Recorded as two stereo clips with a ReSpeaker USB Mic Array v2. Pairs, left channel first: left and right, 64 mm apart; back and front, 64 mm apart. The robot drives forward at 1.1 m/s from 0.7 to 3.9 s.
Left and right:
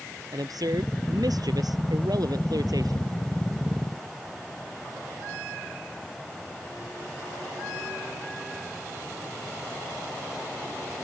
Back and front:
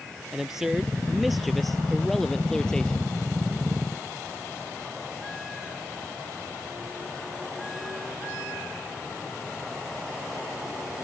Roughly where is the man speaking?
Right.